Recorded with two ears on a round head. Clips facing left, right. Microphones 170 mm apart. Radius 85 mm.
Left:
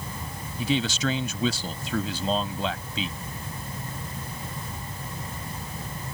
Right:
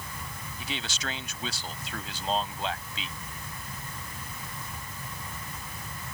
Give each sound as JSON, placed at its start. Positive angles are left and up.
{"t": 0.6, "sound": "a man speaking", "side_deg": 80}